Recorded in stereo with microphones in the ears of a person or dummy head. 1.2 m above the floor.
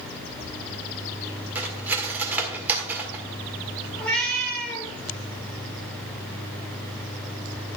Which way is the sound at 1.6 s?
5° right (ahead or behind).